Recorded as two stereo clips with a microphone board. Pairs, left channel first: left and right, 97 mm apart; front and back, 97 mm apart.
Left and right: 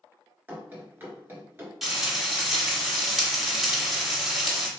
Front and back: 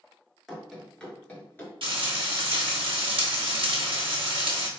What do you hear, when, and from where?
0.5 s running footsteps: 95° right, 1.5 m; by 1.7 s 45° right, 1.7 m
1.8 s frying: 175° right, 1.2 m